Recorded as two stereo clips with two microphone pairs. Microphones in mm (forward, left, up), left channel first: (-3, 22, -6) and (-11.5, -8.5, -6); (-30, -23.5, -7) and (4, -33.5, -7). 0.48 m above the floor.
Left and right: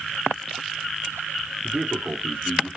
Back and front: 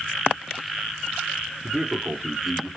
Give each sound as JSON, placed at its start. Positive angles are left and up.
{"t": 1.6, "sound": "a man speaking", "azimuth_deg": -110, "distance_m": 1.0}